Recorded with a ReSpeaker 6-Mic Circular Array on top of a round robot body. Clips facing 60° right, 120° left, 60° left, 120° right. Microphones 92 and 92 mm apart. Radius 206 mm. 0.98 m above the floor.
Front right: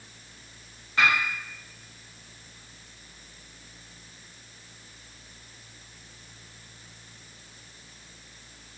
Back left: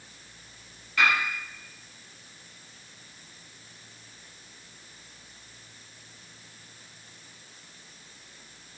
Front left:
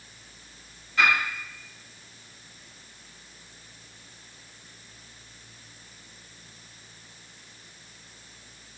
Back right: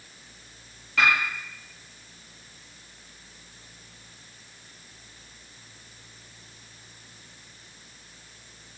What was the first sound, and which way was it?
A piano, 125° right.